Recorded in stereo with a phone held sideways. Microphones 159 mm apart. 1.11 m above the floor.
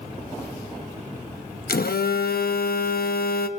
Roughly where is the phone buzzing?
Left.